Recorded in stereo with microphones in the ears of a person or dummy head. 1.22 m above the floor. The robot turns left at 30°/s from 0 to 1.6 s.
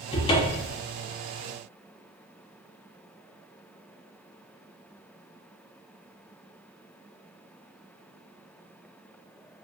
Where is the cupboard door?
30° left (ahead or behind), 0.5 m; by 0.8 s 10° left (ahead or behind), 0.5 m.